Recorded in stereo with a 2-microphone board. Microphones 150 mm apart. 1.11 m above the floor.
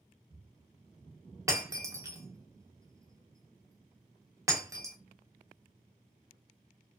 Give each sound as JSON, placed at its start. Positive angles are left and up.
{"t": 1.5, "sound": "breaking glass", "side_deg": -20, "distance_m": 0.7}